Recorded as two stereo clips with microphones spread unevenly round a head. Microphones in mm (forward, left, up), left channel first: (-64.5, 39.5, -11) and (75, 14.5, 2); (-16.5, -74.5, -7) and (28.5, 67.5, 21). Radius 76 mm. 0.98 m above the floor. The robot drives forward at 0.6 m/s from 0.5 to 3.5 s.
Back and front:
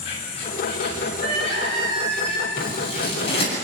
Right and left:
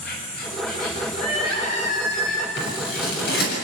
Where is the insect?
135° right, 7 m; by 3.6 s 140° right, 8.5 m.